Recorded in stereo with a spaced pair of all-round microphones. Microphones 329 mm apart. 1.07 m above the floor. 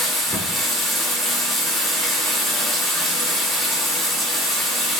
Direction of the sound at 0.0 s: Centre (ahead or behind).